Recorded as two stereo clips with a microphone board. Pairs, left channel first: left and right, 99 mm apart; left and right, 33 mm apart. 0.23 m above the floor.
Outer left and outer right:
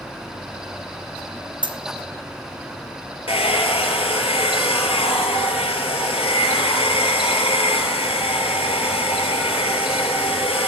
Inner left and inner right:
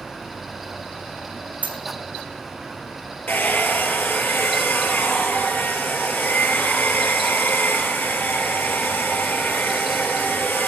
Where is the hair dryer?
85° left, 1.0 m.